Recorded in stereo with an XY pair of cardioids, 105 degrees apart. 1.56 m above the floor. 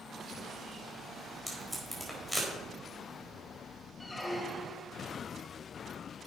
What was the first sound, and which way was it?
Tape being pulled, straight ahead.